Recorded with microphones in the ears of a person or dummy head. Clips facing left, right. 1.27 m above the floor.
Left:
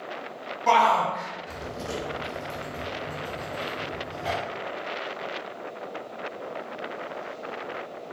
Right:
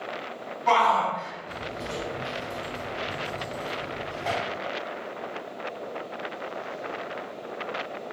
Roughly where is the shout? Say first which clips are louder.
Left 1 dB; left.